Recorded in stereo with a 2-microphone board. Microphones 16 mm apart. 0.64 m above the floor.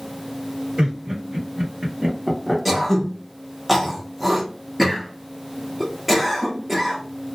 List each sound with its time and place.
0.8 s laughter: 65° right (ahead or behind), 1.6 m; by 2.5 s 10° right (ahead or behind), 0.8 m
2.6 s throat clearing: 5° right (ahead or behind), 0.7 m